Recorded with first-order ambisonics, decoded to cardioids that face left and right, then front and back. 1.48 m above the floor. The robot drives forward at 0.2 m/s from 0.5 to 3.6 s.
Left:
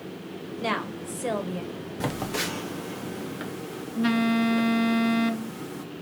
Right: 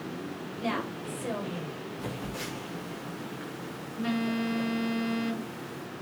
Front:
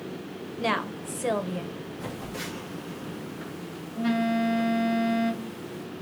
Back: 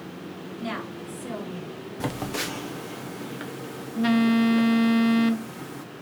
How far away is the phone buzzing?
About 0.5 m.